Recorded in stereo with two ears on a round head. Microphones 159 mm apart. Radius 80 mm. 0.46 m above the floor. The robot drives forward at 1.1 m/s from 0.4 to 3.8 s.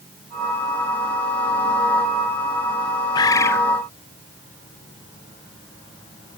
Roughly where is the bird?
Left.